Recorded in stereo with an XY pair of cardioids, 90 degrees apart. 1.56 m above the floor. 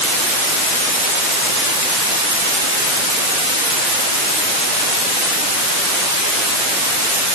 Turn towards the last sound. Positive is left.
No sound to turn to.